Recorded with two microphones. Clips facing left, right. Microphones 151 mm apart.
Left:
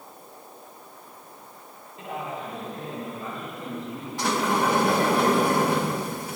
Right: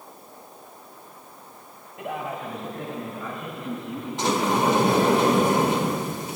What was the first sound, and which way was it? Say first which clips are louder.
A man speaking: right 2 dB; 65° right (ahead or behind).